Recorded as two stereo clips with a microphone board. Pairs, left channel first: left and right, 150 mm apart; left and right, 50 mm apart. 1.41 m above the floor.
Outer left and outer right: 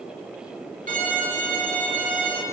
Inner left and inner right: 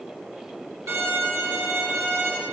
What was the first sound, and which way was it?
A violin, 65° right (ahead or behind).